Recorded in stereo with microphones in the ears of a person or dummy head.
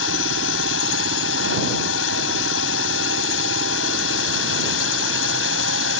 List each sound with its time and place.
0.0 s a drone: 80° left